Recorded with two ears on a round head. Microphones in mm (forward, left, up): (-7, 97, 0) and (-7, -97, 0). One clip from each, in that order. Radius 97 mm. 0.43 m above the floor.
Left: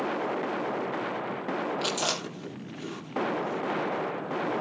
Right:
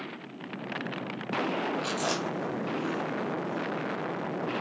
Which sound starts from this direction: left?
Chewing, at 1.8 s.